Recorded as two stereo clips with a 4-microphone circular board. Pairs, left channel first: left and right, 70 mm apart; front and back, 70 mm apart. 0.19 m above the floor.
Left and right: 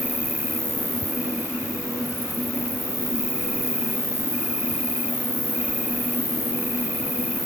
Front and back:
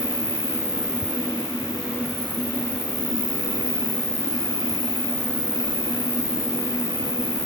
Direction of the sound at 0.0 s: 25° right.